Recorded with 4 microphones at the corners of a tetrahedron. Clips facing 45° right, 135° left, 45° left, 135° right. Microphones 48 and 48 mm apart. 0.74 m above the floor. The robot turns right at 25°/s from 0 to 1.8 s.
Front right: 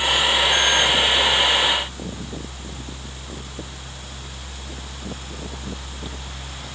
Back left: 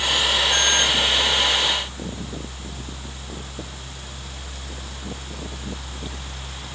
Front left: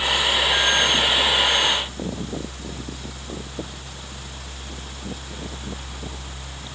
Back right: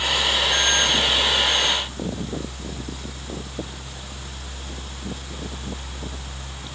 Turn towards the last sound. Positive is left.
No sound to turn to.